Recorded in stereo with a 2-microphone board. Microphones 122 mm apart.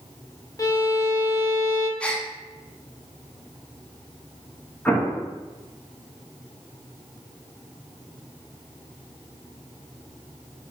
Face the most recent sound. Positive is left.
turn(degrees=10)  # may be behind; listen again after turning